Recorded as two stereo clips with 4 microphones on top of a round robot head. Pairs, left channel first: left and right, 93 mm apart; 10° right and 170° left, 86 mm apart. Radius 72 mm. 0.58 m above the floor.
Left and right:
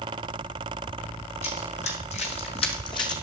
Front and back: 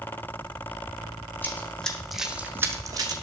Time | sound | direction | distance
1.4 | running footsteps | 55° left | 2.5 m